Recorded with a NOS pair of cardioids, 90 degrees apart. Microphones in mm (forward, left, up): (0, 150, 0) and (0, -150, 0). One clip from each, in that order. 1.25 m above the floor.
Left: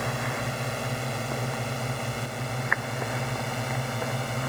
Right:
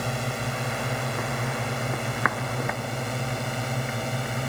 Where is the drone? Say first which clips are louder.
Even; 10° right.